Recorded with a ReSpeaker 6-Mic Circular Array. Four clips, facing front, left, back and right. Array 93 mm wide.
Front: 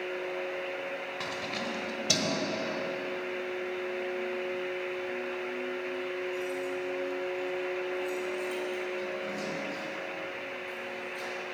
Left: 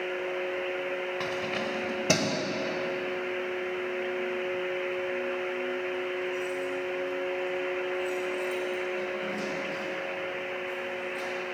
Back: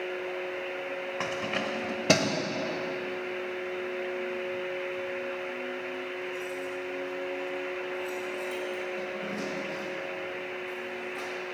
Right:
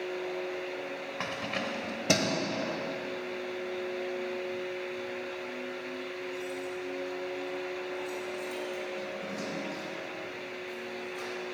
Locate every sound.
1.2 s keys jangling: 165° right, 1.0 m; by 11.3 s 155° left, 6 m